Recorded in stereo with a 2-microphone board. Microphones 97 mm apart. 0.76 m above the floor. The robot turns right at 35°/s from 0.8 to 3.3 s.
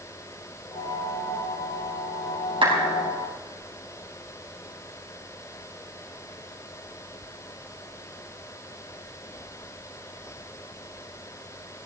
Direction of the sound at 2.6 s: 60° right (ahead or behind).